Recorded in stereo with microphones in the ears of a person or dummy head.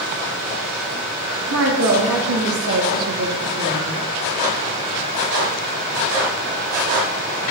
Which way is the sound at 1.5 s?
80° right.